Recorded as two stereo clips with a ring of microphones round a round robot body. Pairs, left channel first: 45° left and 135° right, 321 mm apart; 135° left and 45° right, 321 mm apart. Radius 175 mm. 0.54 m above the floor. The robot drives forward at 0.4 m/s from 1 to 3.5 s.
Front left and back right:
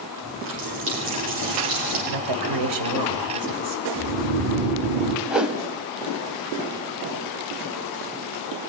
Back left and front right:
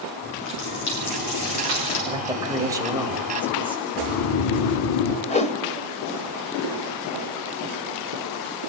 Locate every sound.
0.2 s a running tap: 170° left, 8.5 m; by 2.0 s 175° left, 9 m
2.1 s a woman speaking: 120° right, 2.5 m; by 3.8 s 130° right, 3 m
4.0 s snoring: 165° left, 3 m
5.3 s a whoosh: 140° left, 1.2 m